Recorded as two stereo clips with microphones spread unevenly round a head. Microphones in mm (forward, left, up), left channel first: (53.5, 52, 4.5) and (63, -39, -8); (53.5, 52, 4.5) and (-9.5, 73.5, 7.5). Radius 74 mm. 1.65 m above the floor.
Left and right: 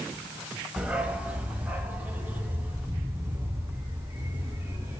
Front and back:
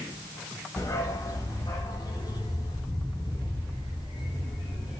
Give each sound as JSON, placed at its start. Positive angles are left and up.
{"t": 0.8, "sound": "a dog barking", "azimuth_deg": 0, "distance_m": 1.9}